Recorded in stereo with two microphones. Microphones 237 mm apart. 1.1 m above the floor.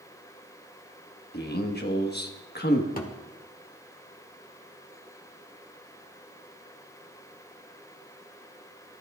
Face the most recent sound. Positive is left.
turn(degrees=35)  # may be behind; listen again after turning